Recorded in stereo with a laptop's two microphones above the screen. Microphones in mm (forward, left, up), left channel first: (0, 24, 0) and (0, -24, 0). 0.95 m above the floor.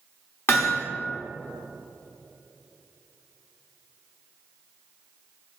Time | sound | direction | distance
0.5 | hammering | 60° left (ahead or behind) | 1.5 m